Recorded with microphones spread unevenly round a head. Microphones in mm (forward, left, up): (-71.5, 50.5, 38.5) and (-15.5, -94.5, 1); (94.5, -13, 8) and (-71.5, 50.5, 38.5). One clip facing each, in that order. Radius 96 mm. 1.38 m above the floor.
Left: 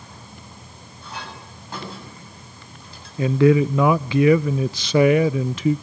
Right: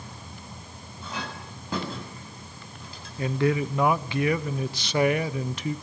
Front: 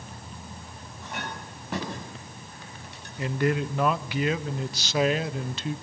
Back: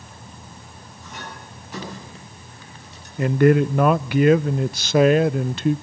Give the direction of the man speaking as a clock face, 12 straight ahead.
8 o'clock.